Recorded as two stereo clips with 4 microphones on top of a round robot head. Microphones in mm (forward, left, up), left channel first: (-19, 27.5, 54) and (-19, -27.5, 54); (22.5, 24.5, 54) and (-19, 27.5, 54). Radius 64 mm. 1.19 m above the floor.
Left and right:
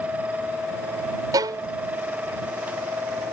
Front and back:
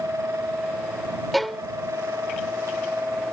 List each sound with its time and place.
1.3 s a violin: 90° right